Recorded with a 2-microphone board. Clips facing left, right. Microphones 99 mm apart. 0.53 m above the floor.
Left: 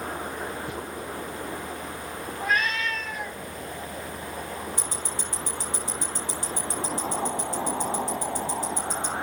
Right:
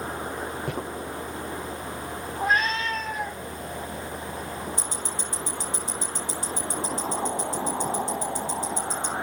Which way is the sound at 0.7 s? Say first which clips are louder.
Right 3 dB; 75° right (ahead or behind).